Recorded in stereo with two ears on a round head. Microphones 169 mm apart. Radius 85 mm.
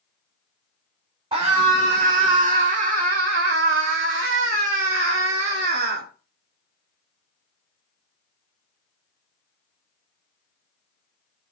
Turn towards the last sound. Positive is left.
turn(degrees=-55)  # may be behind; listen again after turning